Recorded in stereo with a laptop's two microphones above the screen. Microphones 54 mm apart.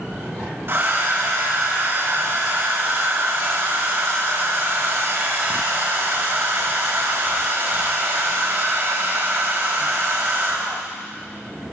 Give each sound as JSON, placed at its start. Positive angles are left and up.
{"t": 0.7, "sound": "a hair dryer", "side_deg": -50, "distance_m": 0.8}